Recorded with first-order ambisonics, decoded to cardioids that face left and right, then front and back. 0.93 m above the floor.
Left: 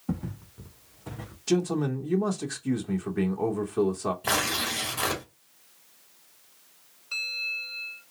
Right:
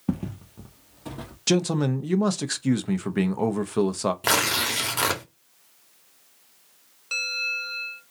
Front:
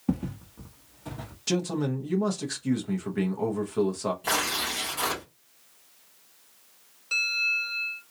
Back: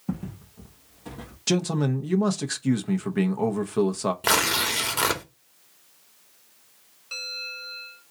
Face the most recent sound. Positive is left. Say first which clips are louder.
# right 4 dB, front 8 dB
turn(degrees=-75)